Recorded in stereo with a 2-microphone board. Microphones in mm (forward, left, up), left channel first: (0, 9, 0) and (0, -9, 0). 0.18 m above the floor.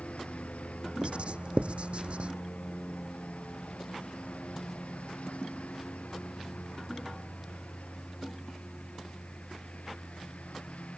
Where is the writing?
65° right (ahead or behind).